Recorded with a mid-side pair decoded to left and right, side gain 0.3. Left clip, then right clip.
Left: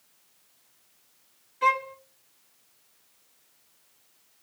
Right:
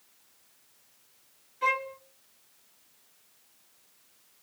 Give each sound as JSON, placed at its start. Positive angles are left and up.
{"t": 1.6, "sound": "a violin", "azimuth_deg": 55, "distance_m": 0.6}